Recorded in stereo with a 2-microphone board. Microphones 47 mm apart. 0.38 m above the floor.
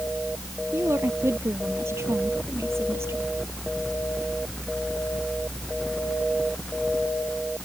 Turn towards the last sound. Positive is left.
turn(degrees=-65)  # may be behind; listen again after turning